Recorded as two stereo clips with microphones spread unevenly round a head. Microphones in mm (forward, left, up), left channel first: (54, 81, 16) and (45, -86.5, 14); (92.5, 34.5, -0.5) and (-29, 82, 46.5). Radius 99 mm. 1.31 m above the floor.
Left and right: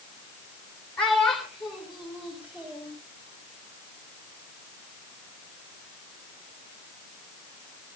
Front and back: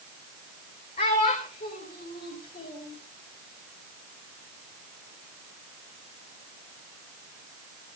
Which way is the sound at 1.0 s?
5° left.